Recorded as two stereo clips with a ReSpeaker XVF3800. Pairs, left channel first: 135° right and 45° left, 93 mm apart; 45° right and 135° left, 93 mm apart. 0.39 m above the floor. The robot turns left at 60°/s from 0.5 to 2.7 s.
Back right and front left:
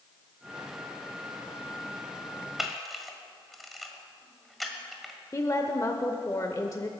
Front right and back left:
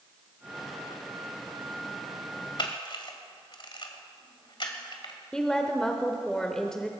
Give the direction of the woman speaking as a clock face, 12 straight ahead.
4 o'clock.